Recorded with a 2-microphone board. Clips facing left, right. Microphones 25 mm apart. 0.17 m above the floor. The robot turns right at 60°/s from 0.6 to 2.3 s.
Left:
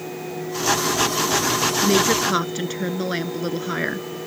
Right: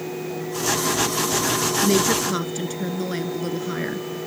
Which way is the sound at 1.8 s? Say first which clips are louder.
Left 1 dB; centre (ahead or behind).